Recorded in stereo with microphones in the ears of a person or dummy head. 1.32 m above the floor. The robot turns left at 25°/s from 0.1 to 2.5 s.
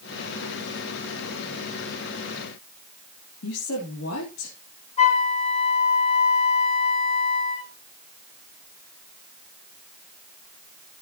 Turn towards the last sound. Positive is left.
turn(degrees=45)  # may be behind; listen again after turning